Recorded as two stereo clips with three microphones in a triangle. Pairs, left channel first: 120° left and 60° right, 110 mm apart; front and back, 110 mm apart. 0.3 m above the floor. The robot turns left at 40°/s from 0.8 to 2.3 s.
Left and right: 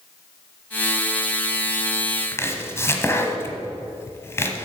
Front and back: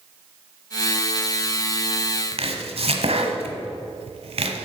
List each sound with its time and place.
2.3 s chopping: 175° right, 1.1 m